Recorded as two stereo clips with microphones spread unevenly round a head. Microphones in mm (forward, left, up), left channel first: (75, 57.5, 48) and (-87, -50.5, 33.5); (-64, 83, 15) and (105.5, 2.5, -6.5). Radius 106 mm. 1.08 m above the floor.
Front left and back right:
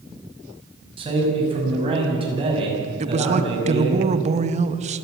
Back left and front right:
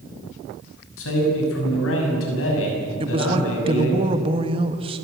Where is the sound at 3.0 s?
90° right, 1.3 m.